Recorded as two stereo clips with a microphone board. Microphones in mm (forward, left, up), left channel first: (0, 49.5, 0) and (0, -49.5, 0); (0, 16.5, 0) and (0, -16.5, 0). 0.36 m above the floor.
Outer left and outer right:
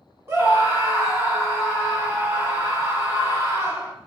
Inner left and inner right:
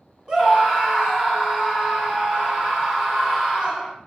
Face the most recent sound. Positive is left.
turn(degrees=-25)  # may be behind; listen again after turning